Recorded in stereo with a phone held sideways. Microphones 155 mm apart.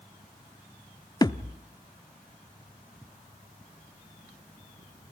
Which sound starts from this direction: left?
A thud, at 1.2 s.